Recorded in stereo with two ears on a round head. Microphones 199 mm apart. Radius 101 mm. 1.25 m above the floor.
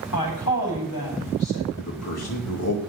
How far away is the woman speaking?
About 6.5 m.